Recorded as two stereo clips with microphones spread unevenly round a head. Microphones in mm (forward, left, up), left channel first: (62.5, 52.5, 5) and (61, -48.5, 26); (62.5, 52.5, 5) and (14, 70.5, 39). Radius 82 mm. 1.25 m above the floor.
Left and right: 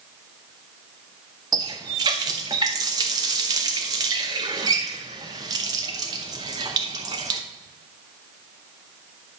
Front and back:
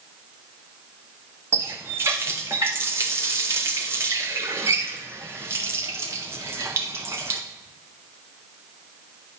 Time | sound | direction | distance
1.5 | a running tap | 155° right | 0.6 m